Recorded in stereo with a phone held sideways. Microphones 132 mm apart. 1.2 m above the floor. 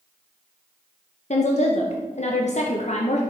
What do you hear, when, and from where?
1.3 s a woman speaking: 60° left (ahead or behind), 0.7 m